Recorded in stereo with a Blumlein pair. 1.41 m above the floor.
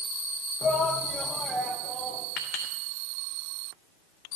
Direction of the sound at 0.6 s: 20° left.